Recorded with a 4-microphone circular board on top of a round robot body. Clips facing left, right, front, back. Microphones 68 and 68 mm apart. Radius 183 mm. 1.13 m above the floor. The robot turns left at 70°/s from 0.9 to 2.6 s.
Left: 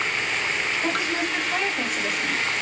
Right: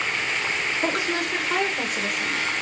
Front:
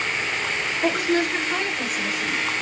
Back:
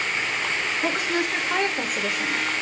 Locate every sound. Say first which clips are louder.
0.8 s a woman speaking: right 2 dB, front 5 dB; 85° right, 1.5 m; by 2.4 s 170° left, 1.5 m